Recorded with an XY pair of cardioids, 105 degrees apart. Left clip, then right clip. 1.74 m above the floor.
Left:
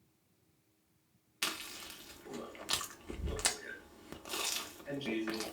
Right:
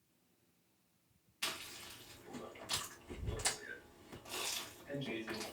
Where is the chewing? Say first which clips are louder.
Left 4 dB; 70° left, 0.9 m.